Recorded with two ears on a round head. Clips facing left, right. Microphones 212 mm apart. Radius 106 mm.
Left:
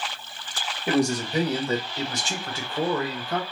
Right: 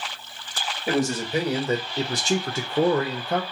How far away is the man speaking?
About 1.1 m.